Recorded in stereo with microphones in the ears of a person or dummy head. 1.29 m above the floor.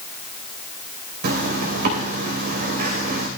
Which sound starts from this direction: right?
A zipper, at 1.2 s.